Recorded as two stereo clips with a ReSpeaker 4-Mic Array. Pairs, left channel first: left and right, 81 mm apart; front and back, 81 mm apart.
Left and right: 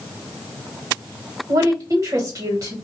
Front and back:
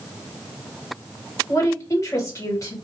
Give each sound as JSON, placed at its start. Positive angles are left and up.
{"t": 1.5, "sound": "a woman speaking", "azimuth_deg": -50, "distance_m": 1.7}